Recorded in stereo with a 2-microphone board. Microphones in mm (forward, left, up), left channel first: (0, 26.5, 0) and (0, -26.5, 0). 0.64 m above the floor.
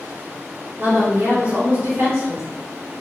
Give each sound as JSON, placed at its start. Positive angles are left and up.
{"t": 0.8, "sound": "a woman speaking", "side_deg": -50, "distance_m": 1.7}